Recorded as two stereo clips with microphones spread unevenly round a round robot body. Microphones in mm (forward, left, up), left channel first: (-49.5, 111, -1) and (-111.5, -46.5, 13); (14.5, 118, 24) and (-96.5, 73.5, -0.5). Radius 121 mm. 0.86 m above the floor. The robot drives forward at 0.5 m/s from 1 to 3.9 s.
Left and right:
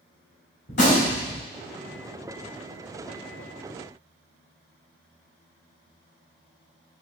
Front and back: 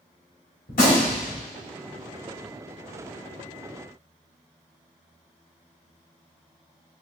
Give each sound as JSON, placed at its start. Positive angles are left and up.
{"t": 0.7, "sound": "a gunshot", "azimuth_deg": 15, "distance_m": 2.5}